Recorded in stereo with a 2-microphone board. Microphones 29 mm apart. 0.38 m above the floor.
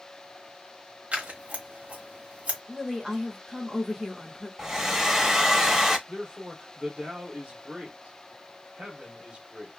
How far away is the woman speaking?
About 1.5 m.